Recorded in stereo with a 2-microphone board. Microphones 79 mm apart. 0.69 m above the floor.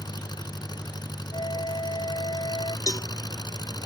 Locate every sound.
0.0 s an engine running: 60° left (ahead or behind)
1.3 s a flute: 80° left
2.9 s a cowbell: 45° left (ahead or behind)